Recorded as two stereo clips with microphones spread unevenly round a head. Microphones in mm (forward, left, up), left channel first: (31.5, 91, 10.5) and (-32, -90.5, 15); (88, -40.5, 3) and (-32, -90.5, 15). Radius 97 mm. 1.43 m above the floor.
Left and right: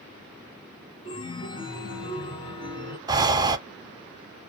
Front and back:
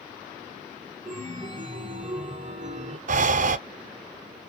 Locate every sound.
1.1 s a chime: 135° left, 1.2 m
3.1 s breathing: straight behind, 0.6 m